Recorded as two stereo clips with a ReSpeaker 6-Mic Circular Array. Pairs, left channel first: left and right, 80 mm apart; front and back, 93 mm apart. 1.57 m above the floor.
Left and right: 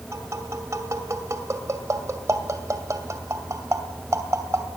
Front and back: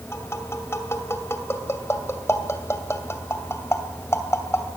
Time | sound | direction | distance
0.1 | tapping | 50° right | 2 m